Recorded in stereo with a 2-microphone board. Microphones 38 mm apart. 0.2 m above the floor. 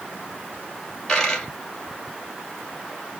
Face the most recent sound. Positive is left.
turn(degrees=10)  # may be behind; listen again after turning